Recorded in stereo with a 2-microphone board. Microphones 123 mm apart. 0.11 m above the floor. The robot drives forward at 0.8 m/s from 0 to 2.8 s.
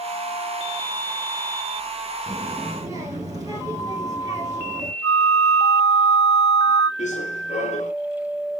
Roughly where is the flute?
Left.